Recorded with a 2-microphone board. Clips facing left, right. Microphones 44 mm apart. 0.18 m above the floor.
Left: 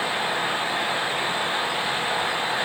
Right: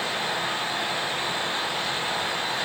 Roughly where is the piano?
No piano in this recording.